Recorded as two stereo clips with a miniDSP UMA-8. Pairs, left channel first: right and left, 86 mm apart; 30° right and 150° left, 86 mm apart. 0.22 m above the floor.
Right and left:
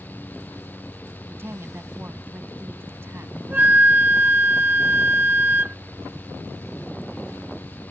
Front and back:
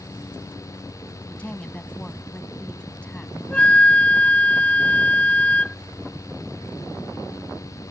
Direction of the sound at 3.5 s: 35° left.